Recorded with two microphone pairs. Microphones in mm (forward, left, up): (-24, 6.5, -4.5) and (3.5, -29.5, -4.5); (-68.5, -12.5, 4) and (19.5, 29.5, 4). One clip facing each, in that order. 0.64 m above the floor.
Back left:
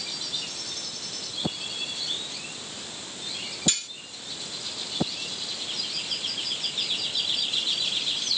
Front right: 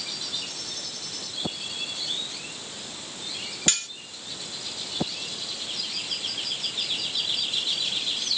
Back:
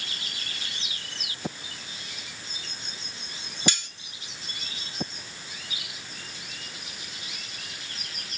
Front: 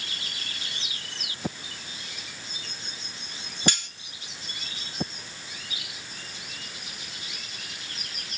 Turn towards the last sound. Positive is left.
turn(degrees=-20)